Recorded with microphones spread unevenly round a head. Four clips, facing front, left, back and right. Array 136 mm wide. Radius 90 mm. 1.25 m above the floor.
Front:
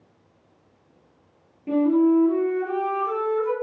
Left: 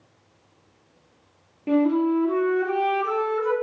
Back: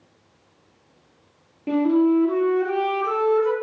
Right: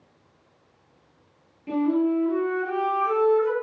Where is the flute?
135° left, 0.9 m.